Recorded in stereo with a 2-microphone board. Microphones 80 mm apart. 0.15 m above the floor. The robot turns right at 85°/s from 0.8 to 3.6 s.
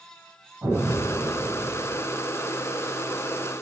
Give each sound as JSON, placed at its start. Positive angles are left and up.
{"t": 0.6, "sound": "an explosion", "azimuth_deg": -140, "distance_m": 3.5}